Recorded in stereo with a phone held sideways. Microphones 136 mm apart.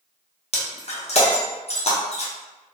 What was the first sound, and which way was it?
Breaking glass, 50° left (ahead or behind).